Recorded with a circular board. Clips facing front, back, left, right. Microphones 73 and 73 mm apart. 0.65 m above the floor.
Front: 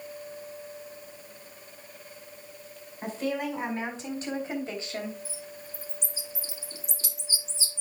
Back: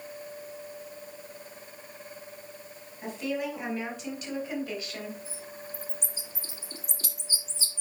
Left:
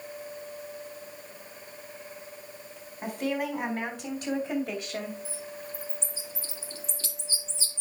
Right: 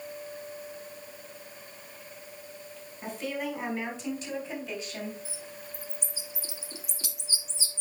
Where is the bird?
165° right, 1.8 m.